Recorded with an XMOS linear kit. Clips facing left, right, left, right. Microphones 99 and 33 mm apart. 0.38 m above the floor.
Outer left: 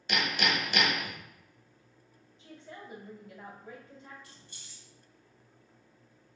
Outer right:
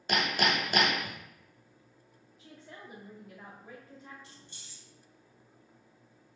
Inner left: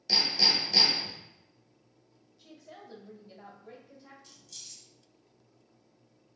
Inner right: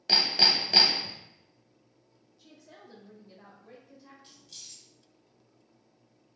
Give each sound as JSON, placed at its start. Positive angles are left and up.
{"t": 0.1, "sound": "hammering", "side_deg": -40, "distance_m": 0.6}
{"t": 2.4, "sound": "a woman speaking", "side_deg": 0, "distance_m": 1.2}
{"t": 4.2, "sound": "keys jangling", "side_deg": -25, "distance_m": 1.1}